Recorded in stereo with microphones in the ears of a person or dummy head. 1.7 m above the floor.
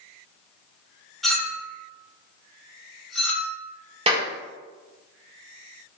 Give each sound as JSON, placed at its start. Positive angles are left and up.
{"t": 1.2, "sound": "a clink", "side_deg": 0, "distance_m": 1.1}
{"t": 4.1, "sound": "a clap", "side_deg": -40, "distance_m": 1.2}